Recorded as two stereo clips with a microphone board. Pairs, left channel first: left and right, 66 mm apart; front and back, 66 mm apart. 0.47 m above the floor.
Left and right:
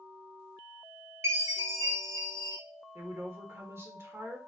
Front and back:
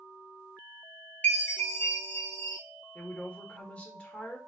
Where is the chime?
60° right, 2 m.